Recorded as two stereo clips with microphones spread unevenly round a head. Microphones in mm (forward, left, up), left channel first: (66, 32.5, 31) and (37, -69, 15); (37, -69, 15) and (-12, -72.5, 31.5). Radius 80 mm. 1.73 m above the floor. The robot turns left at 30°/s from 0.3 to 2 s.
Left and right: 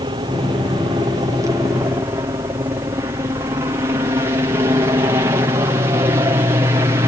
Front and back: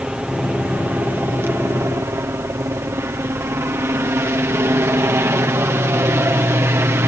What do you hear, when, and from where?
0.0 s a helicopter: 105° right; by 7.1 s 155° right